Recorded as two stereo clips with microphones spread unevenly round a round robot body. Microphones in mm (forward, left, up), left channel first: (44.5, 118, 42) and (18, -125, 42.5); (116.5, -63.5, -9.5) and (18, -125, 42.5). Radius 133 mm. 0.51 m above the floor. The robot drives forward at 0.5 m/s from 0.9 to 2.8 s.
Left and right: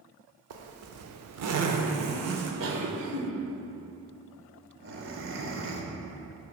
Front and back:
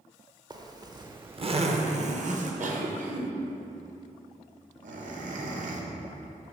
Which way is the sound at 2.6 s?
125° right.